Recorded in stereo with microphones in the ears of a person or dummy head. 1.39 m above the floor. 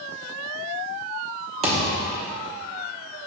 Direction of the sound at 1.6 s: 35° right (ahead or behind).